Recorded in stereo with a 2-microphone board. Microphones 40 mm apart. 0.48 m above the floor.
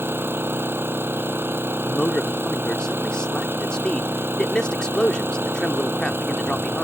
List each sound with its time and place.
0.0 s an engine running: 85° right
1.9 s a man speaking: 25° left (ahead or behind)